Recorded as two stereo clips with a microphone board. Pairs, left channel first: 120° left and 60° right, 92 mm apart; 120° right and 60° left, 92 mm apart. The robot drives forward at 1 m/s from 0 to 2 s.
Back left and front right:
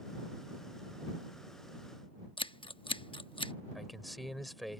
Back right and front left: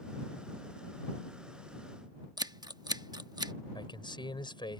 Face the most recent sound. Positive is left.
turn(degrees=-150)